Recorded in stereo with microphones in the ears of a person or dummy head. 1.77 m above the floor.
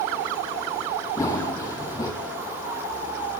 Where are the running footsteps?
15° left (ahead or behind), 3 m.